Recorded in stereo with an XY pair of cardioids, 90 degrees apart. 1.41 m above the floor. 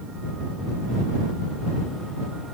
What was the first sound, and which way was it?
Only background noise.